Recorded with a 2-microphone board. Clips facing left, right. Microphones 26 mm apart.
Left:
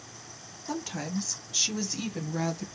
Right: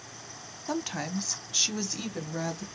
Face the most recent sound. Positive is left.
turn(degrees=5)  # may be behind; listen again after turning